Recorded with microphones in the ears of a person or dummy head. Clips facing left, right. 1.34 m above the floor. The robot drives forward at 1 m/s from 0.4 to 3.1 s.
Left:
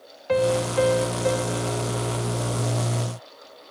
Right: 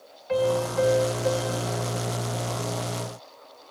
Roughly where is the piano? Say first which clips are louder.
Left 2 dB; left.